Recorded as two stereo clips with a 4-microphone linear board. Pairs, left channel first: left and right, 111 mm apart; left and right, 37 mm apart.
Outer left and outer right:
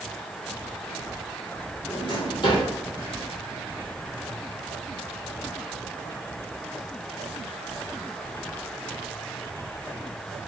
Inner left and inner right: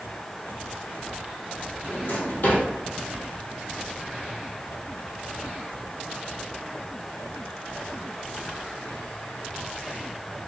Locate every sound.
1.9 s a drawer: 50° left (ahead or behind), 1.4 m